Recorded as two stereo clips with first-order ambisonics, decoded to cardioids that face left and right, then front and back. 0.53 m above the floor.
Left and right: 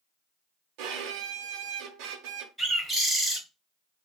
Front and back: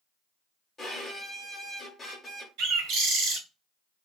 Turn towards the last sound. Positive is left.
turn(degrees=180)